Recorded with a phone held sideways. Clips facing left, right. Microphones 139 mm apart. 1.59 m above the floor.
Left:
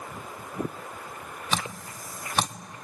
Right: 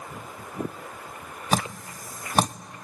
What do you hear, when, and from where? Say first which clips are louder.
1.5 s dripping: right 6 dB; 40° right (ahead or behind), 0.6 m